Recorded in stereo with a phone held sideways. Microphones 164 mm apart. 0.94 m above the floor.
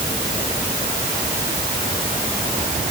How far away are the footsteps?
I don't hear footsteps.